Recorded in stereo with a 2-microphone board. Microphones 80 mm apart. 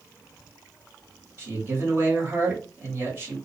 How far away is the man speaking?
About 1.2 m.